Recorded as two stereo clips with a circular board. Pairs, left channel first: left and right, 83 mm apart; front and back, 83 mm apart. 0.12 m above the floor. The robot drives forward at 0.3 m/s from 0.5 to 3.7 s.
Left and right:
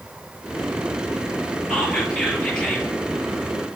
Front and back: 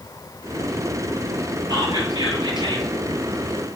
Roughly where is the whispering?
Behind.